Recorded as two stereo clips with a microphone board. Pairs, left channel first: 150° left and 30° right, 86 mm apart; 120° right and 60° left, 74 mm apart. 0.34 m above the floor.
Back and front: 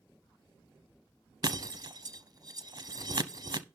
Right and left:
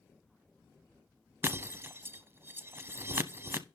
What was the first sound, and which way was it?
Breaking glass, 5° left.